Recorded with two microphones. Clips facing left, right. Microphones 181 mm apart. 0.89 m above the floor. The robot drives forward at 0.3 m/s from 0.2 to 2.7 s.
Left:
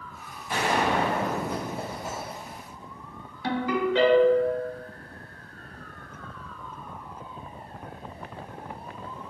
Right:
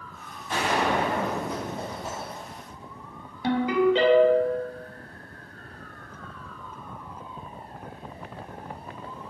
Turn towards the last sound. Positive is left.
turn(degrees=-20)  # may be behind; listen again after turning